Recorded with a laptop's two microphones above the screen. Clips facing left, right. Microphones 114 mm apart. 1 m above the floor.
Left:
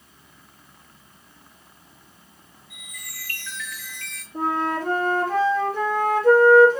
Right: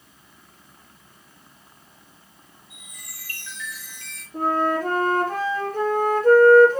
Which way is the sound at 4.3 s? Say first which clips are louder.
Right 2 dB; 45° right (ahead or behind).